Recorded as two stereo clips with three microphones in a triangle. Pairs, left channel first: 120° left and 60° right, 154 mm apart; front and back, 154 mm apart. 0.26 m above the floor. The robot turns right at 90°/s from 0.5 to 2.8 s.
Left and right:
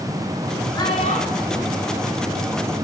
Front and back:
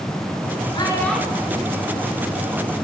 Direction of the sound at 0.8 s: 55° left.